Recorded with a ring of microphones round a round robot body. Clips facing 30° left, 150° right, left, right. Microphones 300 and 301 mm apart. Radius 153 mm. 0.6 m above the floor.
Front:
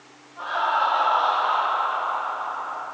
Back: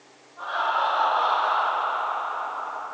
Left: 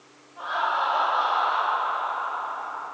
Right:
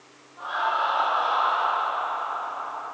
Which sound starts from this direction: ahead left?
Laughter, at 0.4 s.